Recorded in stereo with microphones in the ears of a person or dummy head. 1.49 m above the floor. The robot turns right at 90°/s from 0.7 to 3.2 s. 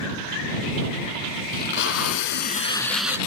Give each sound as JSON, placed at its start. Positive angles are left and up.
{"t": 1.5, "sound": "tape being pulled", "azimuth_deg": 45}